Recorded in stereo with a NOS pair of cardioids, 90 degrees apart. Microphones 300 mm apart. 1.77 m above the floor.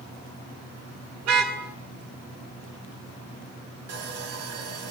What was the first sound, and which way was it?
A car horn, 70° right.